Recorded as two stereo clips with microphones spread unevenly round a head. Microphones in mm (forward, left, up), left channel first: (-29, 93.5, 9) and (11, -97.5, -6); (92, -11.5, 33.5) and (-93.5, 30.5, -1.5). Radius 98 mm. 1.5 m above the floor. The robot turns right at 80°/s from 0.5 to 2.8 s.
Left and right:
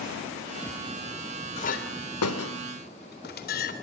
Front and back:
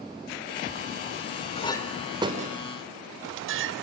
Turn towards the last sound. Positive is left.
turn(degrees=140)